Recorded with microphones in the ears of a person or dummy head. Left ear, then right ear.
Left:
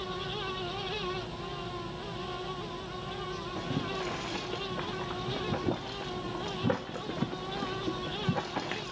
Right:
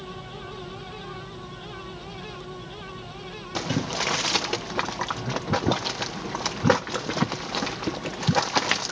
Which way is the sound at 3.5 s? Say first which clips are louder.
Right 10 dB; 65° right (ahead or behind).